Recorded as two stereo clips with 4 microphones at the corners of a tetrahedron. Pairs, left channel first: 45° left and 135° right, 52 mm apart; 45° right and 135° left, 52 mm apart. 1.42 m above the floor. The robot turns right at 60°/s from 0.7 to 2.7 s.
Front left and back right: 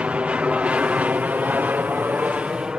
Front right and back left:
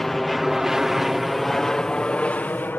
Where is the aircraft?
120° right; by 2.8 s 70° right.